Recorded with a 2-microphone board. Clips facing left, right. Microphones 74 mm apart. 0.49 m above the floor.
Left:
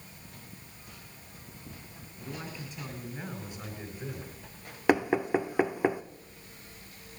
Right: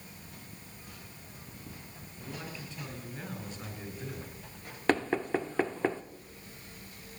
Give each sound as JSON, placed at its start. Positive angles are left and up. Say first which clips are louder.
{"t": 2.2, "sound": "a man speaking", "louder": "left 2 dB", "side_deg": 10, "distance_m": 7.5}
{"t": 4.9, "sound": "knocking", "louder": "left 3 dB", "side_deg": 10, "distance_m": 0.6}